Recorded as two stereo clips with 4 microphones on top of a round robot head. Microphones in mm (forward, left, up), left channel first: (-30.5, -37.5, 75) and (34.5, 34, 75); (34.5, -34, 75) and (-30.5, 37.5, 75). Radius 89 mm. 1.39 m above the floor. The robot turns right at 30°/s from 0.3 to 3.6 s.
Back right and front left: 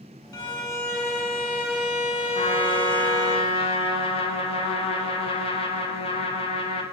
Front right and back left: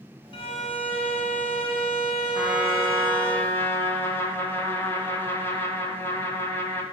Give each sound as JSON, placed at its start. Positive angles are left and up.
{"t": 0.3, "sound": "a violin", "azimuth_deg": -85, "distance_m": 2.0}
{"t": 2.4, "sound": "a trumpet", "azimuth_deg": -150, "distance_m": 1.5}